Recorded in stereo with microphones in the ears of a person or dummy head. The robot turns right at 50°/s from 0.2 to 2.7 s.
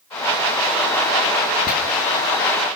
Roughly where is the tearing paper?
Left.